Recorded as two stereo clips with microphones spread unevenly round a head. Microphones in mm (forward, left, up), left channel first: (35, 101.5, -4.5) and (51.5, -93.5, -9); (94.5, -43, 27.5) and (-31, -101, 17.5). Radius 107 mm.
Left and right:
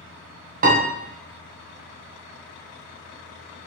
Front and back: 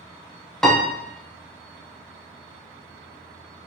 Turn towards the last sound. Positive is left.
turn(degrees=-55)